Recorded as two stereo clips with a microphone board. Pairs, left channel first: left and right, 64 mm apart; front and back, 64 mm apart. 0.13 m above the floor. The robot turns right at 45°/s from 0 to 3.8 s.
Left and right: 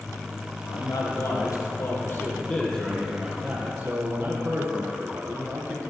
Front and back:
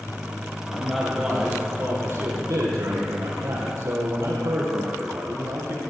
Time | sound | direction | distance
0.7 | a man speaking | 75° left | 3.5 m